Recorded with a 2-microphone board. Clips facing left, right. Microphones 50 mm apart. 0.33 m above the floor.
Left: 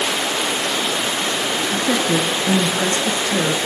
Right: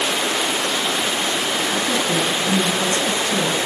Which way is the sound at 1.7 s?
40° left (ahead or behind).